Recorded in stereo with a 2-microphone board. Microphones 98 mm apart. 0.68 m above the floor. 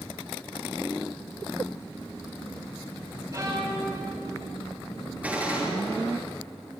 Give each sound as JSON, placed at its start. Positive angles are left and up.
{"t": 3.3, "sound": "a violin", "side_deg": -30, "distance_m": 5.5}
{"t": 5.2, "sound": "a gunshot", "side_deg": -15, "distance_m": 7.5}